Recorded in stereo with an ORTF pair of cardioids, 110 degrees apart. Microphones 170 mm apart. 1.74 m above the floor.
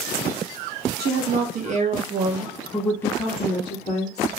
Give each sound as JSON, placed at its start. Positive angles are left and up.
{"t": 1.0, "sound": "a woman speaking", "azimuth_deg": -65, "distance_m": 1.0}